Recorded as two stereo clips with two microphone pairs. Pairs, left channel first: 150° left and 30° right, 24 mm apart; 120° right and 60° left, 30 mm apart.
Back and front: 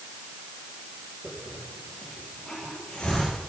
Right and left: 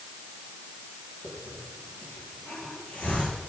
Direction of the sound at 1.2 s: 155° right.